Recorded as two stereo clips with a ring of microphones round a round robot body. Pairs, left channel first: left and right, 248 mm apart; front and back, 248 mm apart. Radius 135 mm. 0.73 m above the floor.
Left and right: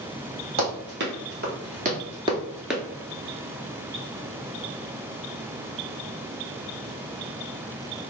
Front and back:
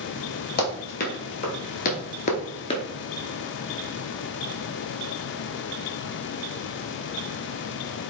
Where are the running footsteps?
50° right, 1.4 m; by 2.8 s 5° left, 0.7 m.